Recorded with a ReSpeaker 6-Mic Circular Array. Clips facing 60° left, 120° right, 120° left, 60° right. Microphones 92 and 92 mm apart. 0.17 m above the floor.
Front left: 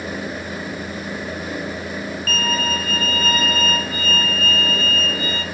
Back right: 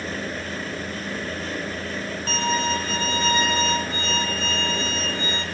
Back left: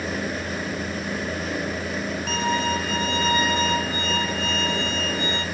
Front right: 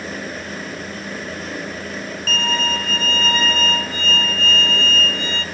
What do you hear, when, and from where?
2.3 s a violin: 170° right, 1.2 m